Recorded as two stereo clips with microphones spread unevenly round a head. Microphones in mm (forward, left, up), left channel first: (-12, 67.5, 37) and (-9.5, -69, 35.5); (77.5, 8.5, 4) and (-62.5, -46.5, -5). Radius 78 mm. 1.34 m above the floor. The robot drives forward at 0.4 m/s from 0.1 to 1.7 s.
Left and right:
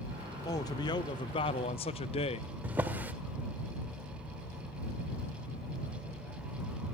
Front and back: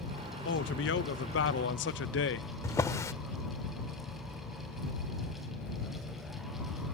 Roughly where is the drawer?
Ahead.